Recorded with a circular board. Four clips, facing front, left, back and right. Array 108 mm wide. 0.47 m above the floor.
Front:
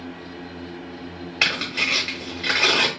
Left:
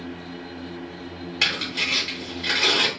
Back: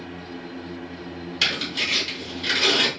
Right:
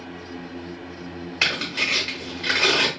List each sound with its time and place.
1.4 s tearing paper: 20° right, 1.3 m